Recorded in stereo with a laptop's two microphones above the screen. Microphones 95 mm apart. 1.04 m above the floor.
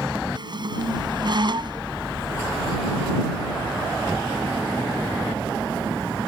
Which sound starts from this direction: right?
A squeak, at 0.3 s.